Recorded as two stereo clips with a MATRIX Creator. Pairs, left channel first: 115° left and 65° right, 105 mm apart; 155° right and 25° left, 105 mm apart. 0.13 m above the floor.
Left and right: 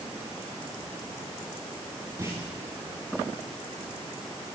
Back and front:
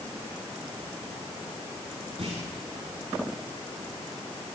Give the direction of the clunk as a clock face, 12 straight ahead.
12 o'clock.